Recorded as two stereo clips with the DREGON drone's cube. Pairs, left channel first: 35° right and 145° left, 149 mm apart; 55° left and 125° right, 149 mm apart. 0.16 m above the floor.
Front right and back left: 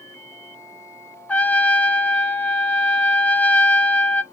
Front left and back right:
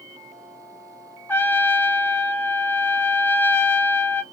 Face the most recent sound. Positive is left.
turn(degrees=20)